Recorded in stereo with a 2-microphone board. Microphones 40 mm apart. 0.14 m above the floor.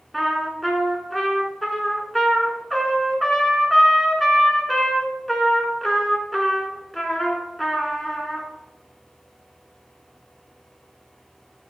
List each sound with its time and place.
0.1 s a trumpet: centre (ahead or behind), 0.7 m